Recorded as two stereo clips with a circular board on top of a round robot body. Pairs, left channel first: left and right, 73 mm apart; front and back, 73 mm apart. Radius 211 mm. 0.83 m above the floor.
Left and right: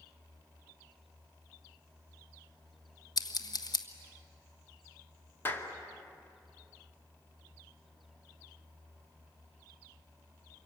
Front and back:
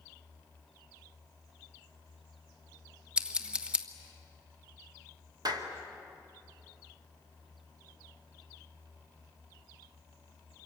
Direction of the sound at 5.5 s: 150° left.